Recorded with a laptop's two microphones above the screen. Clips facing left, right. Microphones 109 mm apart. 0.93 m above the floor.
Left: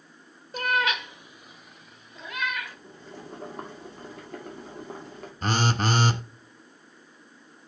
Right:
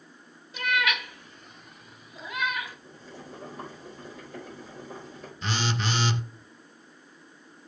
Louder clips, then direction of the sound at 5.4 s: Left 5 dB; 45° left (ahead or behind).